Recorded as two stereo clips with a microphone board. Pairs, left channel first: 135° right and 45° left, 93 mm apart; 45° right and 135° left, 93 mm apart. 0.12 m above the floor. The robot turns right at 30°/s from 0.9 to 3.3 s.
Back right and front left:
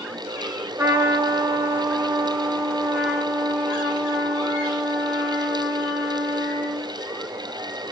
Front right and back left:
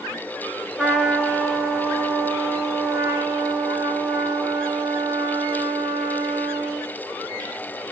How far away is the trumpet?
About 1.3 m.